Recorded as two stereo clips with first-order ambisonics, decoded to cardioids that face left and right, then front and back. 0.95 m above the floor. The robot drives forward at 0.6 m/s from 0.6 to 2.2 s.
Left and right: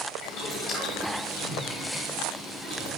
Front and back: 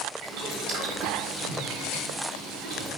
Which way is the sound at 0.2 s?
140° left.